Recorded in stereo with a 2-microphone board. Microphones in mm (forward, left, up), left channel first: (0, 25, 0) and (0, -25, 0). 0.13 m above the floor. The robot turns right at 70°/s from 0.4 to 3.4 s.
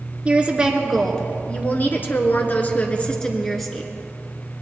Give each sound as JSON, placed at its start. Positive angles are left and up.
{"t": 0.2, "sound": "a woman speaking", "azimuth_deg": -35, "distance_m": 2.0}